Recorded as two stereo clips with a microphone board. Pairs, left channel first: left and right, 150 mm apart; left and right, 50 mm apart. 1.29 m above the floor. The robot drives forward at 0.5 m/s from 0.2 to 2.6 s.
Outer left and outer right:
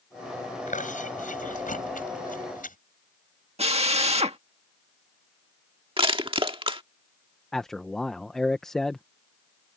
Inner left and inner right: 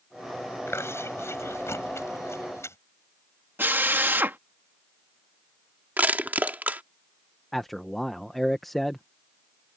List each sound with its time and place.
0.7 s chewing: 60° left (ahead or behind); by 2.8 s 65° left (ahead or behind)
3.6 s a drill: 45° right (ahead or behind)
6.0 s crushing: 35° right (ahead or behind)
7.5 s a man speaking: 5° left (ahead or behind)